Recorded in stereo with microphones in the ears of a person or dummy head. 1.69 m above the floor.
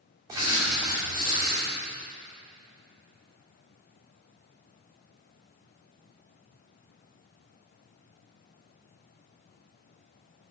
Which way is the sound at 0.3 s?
15° right (ahead or behind).